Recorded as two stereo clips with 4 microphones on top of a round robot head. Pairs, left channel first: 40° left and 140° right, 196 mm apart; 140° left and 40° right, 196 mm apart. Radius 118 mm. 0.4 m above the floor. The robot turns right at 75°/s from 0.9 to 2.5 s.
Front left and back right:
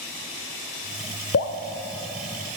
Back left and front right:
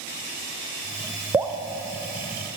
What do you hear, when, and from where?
1.3 s dripping: 30° left, 1.0 m; by 2.6 s 115° left, 1.0 m